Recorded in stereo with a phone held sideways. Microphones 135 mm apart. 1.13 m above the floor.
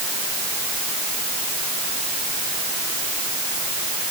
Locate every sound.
Only background noise.